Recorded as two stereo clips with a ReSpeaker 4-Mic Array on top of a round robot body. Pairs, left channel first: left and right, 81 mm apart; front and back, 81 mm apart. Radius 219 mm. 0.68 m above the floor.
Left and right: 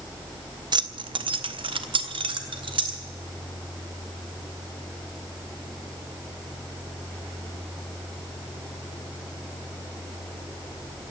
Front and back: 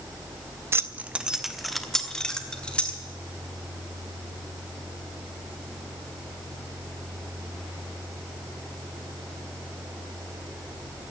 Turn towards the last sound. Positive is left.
turn(degrees=-75)